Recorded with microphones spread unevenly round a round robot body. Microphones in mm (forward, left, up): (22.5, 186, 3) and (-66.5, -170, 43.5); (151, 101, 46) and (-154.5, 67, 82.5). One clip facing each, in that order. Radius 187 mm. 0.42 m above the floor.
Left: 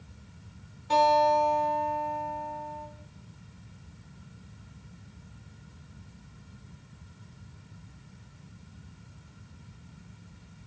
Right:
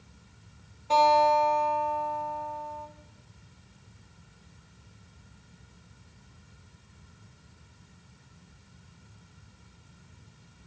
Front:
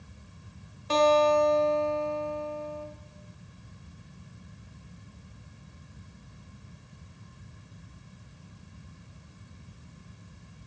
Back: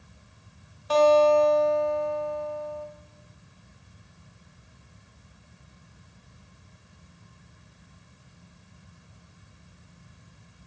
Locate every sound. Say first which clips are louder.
0.9 s a guitar: even, back 4 dB; 35° left, 0.7 m